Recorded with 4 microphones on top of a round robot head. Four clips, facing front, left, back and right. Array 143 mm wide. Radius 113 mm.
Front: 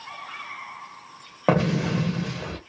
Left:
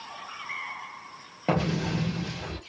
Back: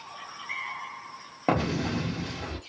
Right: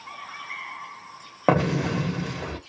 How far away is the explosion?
About 0.6 m.